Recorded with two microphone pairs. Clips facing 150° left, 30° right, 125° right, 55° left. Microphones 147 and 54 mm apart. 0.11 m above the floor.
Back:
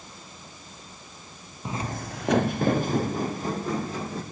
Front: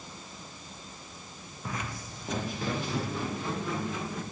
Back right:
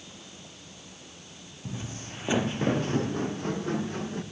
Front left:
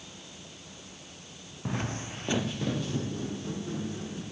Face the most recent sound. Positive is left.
turn(degrees=-160)